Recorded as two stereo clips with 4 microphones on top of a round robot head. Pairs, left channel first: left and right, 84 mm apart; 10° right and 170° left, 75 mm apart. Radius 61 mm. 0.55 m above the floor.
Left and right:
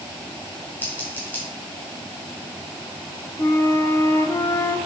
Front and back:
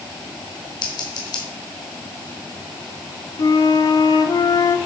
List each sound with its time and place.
0.8 s scissors: 15° left, 2 m
3.4 s a flute: 30° left, 0.5 m